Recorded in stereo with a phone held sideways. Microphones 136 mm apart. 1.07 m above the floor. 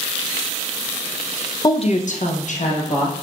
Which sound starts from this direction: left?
A woman speaking, at 1.6 s.